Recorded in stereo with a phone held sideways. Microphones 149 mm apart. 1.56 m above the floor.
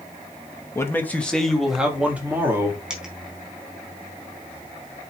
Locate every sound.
0.8 s a man speaking: 20° left (ahead or behind), 2 m; by 2.8 s 20° right (ahead or behind), 3.5 m
2.9 s a dropped coin: 5° right (ahead or behind), 3.5 m